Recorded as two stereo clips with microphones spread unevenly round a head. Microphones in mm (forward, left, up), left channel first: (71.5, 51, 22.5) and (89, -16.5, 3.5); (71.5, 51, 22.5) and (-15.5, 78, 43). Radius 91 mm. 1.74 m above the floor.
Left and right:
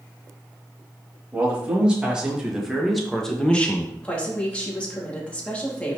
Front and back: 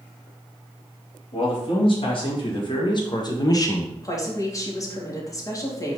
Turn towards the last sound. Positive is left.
turn(degrees=35)